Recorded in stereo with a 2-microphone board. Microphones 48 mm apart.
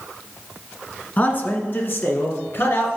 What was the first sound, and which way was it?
A man speaking, 35° left (ahead or behind).